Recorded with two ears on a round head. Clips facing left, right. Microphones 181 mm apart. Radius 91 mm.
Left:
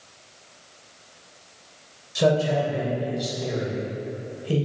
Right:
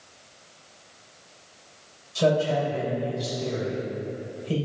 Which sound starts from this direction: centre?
A man speaking, at 2.1 s.